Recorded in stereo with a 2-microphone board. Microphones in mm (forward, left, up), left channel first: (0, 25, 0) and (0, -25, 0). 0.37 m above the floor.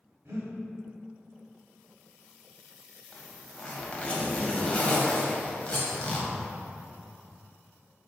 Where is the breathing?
65° right (ahead or behind), 0.9 m.